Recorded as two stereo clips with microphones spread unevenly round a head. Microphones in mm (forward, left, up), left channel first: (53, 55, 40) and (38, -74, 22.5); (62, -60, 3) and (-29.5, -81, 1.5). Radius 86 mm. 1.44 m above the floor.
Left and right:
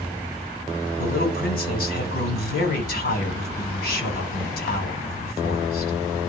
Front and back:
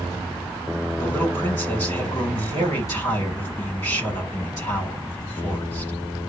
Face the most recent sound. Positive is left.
turn(degrees=85)